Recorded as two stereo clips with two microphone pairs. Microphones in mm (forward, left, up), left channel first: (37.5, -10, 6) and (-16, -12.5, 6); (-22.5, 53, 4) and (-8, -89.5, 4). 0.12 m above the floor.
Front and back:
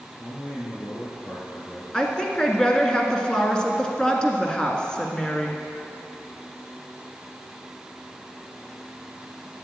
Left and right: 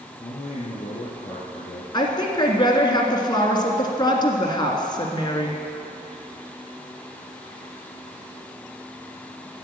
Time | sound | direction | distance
0.2 | a man speaking | 60° left | 4 m
1.9 | a woman speaking | 65° left | 1.6 m